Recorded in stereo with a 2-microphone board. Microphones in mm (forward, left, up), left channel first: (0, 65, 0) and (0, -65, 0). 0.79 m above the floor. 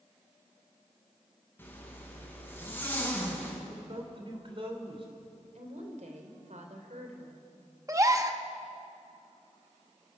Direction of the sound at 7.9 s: 25° right (ahead or behind).